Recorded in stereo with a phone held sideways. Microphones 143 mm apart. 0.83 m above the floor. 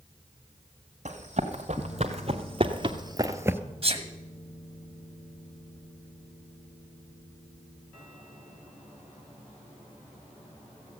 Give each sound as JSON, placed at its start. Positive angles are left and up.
{"t": 1.1, "sound": "running footsteps", "side_deg": -55, "distance_m": 2.0}
{"t": 3.8, "sound": "a sneeze", "side_deg": -40, "distance_m": 1.1}